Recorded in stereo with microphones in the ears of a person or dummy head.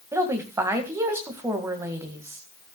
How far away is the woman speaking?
About 1.8 m.